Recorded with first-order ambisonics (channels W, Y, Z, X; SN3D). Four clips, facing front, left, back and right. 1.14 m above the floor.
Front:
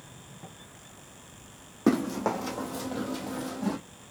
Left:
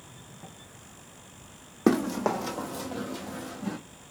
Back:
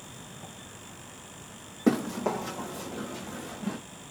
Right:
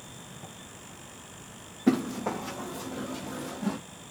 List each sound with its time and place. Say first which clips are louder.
1.9 s running footsteps: left 2 dB, front 1 dB; 80° left, 2 m; by 3.8 s 20° right, 1.7 m